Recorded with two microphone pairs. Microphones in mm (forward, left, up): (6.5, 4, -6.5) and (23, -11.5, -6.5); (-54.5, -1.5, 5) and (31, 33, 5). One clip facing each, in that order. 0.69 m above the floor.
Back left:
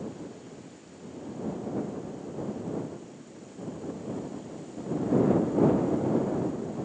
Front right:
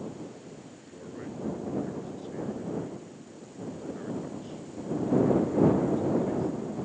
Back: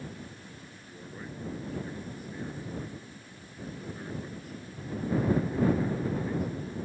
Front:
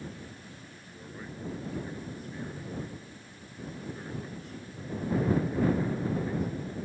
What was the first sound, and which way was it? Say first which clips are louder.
A man speaking: front right 1 dB, back 1 dB; 70° right.